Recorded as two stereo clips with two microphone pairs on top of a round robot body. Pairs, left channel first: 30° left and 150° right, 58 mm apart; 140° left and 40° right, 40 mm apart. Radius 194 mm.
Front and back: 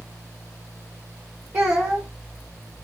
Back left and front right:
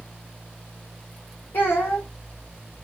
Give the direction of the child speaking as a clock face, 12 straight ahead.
7 o'clock.